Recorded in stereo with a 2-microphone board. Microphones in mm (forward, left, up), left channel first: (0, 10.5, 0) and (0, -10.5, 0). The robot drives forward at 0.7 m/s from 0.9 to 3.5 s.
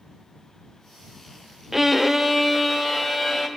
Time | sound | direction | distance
1.7 | a violin | 20° right (ahead or behind) | 0.6 m